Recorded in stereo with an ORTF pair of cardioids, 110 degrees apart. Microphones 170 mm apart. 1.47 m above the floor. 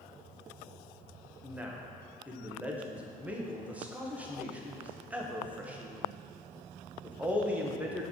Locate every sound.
1.4 s a man speaking: 10° right, 1.2 m